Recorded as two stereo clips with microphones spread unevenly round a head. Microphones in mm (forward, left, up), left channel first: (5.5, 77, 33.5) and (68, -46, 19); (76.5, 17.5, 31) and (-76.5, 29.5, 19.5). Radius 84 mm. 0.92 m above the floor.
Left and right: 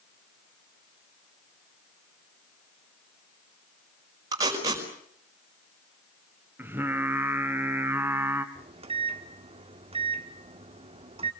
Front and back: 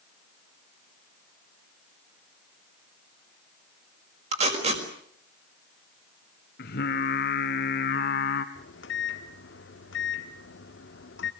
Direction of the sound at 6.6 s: 15° left.